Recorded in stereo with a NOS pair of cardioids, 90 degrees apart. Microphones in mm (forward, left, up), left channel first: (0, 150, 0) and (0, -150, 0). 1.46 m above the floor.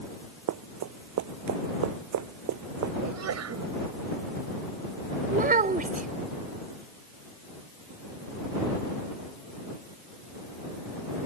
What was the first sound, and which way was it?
Running footsteps, 70° right.